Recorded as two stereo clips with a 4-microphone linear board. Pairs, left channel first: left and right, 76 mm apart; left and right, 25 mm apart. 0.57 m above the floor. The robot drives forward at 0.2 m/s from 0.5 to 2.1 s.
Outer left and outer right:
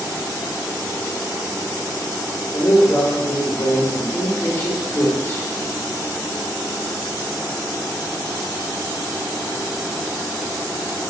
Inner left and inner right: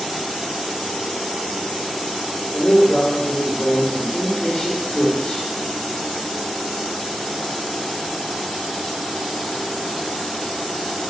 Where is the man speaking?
35° left (ahead or behind), 1.1 m.